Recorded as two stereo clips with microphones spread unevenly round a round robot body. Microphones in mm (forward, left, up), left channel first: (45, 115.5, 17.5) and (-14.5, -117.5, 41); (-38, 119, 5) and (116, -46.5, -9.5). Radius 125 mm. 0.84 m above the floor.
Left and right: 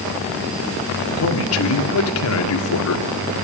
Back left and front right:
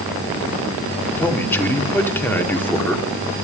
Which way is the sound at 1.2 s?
50° left.